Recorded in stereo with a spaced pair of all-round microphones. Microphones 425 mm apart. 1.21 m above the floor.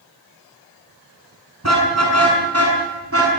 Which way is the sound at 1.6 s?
40° right (ahead or behind).